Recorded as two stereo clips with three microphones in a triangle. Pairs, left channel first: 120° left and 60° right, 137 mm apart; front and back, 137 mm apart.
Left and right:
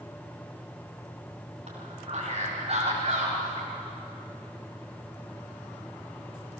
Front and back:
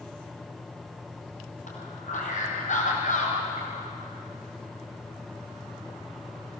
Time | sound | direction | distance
1.7 | a man speaking | 20° right | 5 m